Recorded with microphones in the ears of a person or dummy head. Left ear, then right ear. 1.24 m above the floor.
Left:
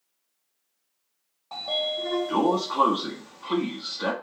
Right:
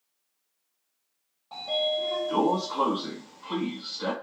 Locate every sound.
1.5 s a sliding door: 25° left (ahead or behind), 1.1 m